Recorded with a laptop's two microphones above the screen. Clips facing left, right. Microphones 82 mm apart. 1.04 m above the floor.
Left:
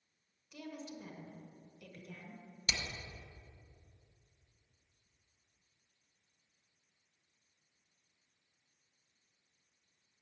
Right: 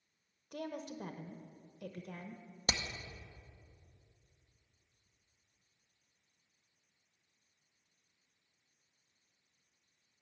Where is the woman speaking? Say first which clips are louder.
Right 4 dB; 50° right (ahead or behind), 0.9 m.